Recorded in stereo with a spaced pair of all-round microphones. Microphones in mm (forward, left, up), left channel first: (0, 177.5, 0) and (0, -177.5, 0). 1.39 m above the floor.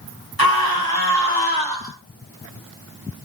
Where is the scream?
85° right, 5.5 m.